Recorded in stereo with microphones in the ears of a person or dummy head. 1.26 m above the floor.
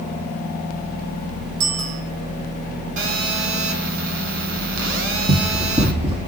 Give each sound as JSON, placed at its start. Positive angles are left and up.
{"t": 1.6, "sound": "a bicycle bell", "side_deg": -75, "distance_m": 8.5}
{"t": 3.0, "sound": "a phone buzzing", "side_deg": -70, "distance_m": 4.5}
{"t": 5.3, "sound": "running footsteps", "side_deg": -30, "distance_m": 3.5}